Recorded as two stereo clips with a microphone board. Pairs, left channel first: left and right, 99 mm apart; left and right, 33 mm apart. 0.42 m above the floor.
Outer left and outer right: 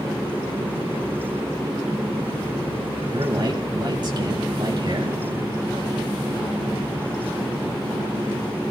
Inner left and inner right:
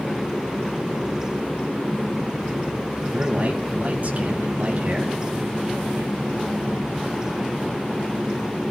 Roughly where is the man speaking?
Right.